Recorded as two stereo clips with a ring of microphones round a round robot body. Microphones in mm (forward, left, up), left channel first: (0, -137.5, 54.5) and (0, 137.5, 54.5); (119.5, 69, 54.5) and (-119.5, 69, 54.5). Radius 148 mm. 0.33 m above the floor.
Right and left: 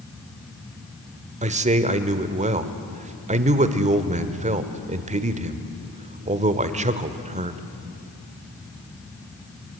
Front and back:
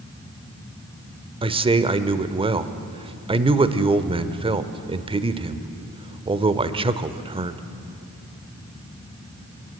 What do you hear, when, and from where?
1.4 s a man speaking: 130° left, 0.9 m